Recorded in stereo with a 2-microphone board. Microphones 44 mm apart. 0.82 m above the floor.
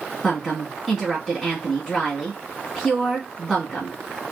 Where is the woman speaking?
10° right (ahead or behind), 1.2 m.